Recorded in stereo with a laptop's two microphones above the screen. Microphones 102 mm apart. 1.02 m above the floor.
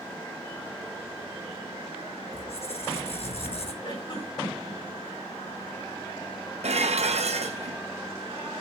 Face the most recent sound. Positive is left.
turn(degrees=-90)